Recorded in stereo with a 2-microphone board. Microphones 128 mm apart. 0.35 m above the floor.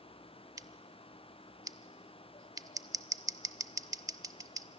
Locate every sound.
0.6 s scissors: 25° right (ahead or behind), 0.5 m